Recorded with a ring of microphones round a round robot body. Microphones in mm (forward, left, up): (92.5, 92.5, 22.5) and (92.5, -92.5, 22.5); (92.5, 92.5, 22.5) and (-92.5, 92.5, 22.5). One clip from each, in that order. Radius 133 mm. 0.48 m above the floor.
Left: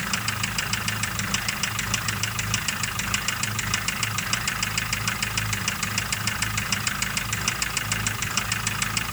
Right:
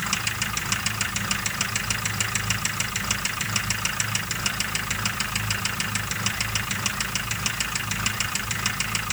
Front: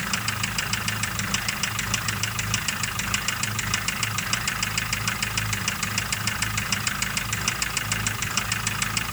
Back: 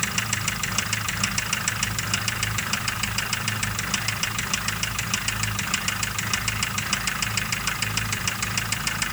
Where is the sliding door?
I don't hear a sliding door.